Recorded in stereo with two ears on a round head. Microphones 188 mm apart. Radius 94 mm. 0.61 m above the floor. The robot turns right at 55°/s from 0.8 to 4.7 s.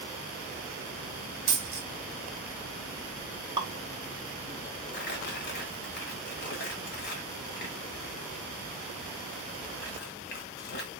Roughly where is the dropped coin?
Right.